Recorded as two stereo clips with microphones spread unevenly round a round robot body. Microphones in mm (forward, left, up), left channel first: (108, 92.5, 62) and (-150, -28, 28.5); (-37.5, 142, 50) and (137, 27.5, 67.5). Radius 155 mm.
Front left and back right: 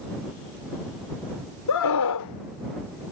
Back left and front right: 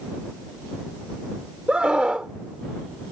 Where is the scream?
50° left.